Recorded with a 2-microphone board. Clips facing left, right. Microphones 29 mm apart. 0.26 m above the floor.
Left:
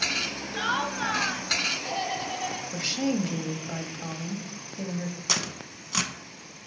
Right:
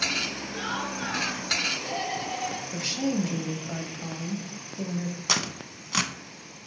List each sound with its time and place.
0.5 s laughter: 35° left (ahead or behind), 1.3 m; by 2.6 s 10° left (ahead or behind), 1.7 m
2.7 s a woman speaking: 10° left (ahead or behind), 1.1 m
5.3 s tearing paper: 10° right (ahead or behind), 0.8 m